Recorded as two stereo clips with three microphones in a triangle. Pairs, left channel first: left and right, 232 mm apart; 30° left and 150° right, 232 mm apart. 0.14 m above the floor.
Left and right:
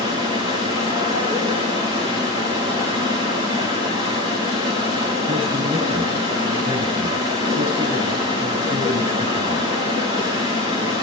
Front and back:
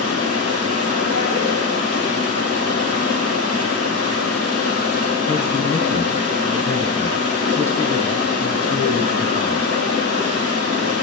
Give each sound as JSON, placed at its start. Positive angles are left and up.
{"t": 0.0, "sound": "running water", "azimuth_deg": -160, "distance_m": 6.0}
{"t": 5.3, "sound": "a man speaking", "azimuth_deg": -45, "distance_m": 1.3}